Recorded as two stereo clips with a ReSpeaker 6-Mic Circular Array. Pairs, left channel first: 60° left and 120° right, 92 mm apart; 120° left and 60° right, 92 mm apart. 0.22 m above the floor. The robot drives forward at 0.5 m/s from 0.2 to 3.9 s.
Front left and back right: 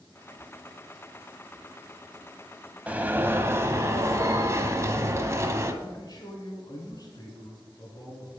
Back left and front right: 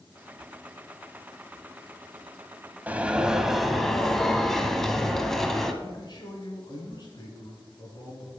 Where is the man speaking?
90° left, 2.5 m.